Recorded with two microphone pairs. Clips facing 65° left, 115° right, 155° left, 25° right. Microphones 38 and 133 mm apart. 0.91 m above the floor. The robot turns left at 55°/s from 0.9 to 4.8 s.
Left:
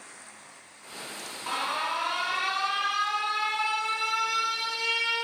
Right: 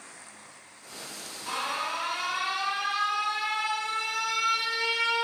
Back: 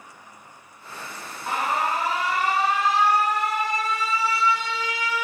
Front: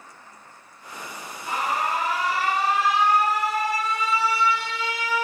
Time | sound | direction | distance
1.5 | an alarm | 135° left | 0.8 m